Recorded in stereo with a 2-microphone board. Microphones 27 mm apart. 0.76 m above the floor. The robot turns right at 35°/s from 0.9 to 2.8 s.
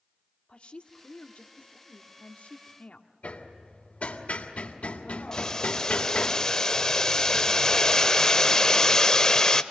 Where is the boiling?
25° left (ahead or behind), 0.9 m.